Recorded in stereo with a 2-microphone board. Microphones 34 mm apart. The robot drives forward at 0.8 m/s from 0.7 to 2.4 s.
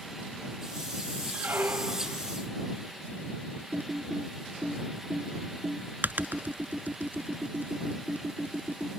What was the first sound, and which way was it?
A squeak, 85° right.